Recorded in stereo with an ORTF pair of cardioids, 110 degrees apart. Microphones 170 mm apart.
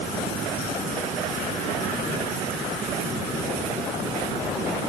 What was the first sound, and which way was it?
Only background noise.